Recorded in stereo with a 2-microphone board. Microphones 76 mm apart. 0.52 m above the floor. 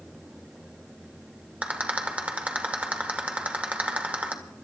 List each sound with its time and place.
1.6 s a rattle: 20° right (ahead or behind), 1.7 m